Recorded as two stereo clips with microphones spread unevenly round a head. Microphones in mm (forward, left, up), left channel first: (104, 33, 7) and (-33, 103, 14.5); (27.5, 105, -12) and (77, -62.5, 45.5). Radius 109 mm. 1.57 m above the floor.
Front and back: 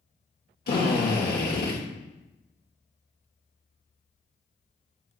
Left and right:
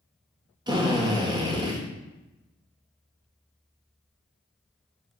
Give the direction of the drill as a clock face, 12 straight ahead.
1 o'clock.